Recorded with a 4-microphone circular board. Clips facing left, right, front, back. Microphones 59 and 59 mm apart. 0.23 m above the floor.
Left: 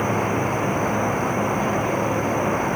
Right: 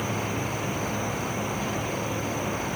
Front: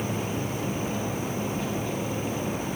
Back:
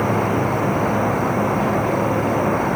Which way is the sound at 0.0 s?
145° left.